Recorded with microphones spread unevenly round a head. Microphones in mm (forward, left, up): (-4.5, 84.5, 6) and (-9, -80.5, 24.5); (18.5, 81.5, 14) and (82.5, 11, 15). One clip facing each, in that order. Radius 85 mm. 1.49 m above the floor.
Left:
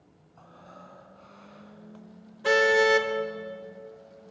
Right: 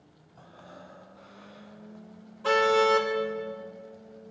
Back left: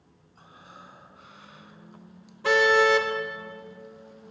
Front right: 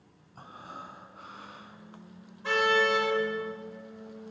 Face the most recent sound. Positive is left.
turn(degrees=165)